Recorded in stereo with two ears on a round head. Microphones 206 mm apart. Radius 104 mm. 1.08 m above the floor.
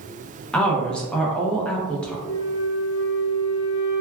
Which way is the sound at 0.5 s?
5° left (ahead or behind).